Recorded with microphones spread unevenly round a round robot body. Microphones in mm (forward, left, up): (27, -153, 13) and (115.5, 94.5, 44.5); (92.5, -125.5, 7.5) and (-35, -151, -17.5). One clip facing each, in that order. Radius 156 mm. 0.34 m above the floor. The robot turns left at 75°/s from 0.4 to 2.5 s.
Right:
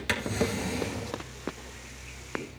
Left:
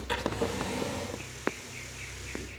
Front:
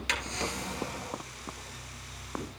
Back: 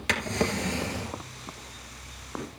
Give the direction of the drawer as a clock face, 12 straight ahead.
4 o'clock.